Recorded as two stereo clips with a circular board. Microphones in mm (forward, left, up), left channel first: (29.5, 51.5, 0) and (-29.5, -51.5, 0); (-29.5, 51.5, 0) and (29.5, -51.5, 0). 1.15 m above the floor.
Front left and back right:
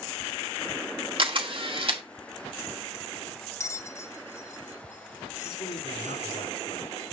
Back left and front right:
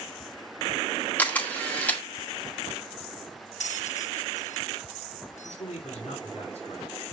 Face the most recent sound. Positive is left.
turn(degrees=95)